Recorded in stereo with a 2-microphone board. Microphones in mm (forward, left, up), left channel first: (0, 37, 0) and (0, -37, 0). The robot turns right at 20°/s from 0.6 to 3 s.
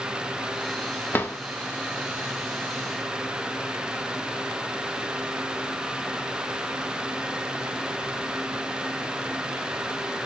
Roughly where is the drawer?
Left.